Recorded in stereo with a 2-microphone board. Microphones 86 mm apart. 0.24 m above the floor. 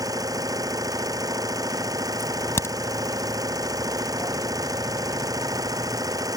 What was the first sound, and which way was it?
An engine running, 45° right (ahead or behind).